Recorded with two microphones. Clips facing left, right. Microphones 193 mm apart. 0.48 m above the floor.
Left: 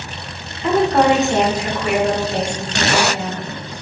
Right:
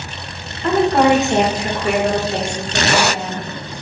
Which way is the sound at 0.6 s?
10° left (ahead or behind).